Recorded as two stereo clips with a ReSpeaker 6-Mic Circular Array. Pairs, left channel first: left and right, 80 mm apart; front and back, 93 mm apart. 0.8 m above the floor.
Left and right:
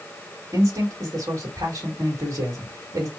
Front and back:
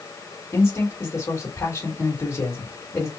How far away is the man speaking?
About 1.6 m.